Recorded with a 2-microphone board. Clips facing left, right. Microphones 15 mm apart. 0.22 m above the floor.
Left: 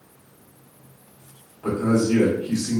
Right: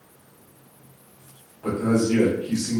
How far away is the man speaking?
About 1.3 m.